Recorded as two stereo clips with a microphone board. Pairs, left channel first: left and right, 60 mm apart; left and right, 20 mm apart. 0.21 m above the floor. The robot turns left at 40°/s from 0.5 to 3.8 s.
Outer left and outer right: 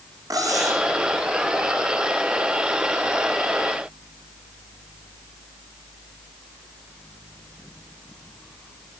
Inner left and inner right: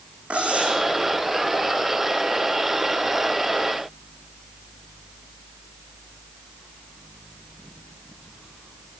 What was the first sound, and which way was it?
Cutlery clinking, 75° right (ahead or behind).